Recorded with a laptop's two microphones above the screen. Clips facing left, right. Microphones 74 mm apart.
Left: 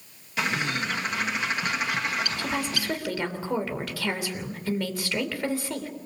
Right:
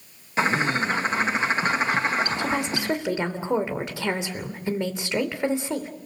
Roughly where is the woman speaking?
Right.